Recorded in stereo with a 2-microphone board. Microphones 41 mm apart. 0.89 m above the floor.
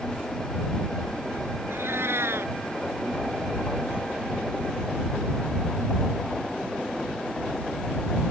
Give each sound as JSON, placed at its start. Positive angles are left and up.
{"t": 1.7, "sound": "a cat meowing", "side_deg": -75}